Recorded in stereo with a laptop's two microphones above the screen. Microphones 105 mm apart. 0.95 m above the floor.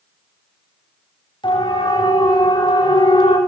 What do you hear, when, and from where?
1.4 s a siren: 50° left (ahead or behind), 7 m